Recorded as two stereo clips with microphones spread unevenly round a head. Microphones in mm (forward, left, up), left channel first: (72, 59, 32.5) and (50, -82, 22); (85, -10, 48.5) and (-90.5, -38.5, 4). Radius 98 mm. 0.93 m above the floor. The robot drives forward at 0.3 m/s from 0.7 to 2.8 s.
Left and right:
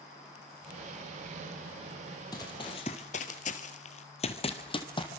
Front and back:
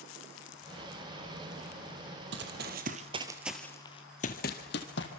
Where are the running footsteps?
150° left, 2.0 m; by 5.1 s 30° left, 2.5 m.